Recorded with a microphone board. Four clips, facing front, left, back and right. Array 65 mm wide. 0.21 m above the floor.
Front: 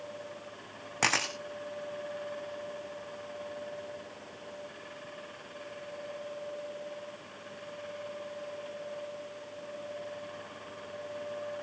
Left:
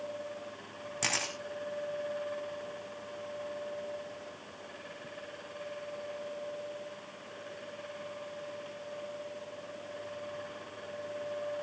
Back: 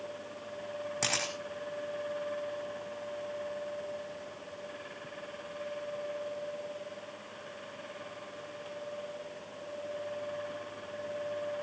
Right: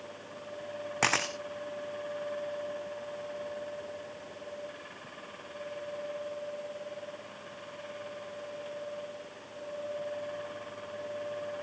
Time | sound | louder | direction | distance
1.0 | a camera shutter | right 6 dB, front 7 dB | 60° right | 3 m